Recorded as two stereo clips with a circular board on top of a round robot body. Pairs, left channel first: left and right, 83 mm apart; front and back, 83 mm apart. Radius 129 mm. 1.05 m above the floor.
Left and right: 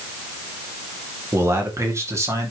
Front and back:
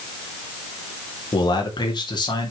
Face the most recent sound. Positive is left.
turn(degrees=-35)